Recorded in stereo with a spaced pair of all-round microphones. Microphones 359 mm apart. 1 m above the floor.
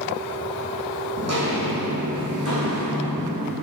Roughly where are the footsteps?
Right.